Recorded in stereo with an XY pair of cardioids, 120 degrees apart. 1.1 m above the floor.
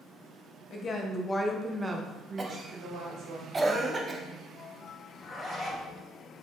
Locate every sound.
0.7 s a woman speaking: 50° left, 1.0 m; by 3.4 s 70° right, 1.4 m
2.4 s a cough: 25° right, 0.8 m
5.1 s a zipper: 20° left, 1.5 m